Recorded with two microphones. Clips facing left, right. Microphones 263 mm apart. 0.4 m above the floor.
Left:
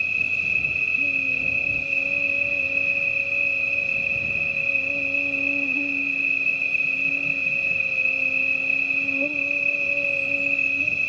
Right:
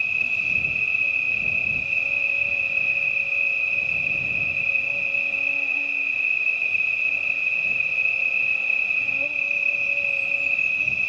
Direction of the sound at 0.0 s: 50° left (ahead or behind).